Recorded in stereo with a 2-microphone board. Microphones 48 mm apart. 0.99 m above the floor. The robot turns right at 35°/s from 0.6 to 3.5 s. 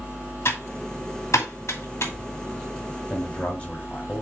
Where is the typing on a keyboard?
55° left (ahead or behind), 2.5 m; by 2.1 s 65° left (ahead or behind), 2.5 m.